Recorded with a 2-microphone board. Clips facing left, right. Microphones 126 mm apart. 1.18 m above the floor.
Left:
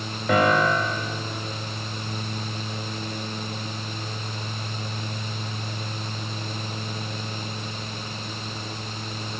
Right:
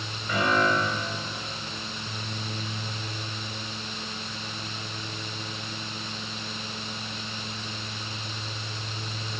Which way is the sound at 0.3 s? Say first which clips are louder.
Left 4 dB; 80° left.